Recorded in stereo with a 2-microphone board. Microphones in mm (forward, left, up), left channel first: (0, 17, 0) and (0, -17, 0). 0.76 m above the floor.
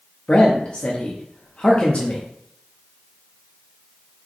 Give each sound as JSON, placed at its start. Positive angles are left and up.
{"t": 0.3, "sound": "a man speaking", "side_deg": 40, "distance_m": 0.7}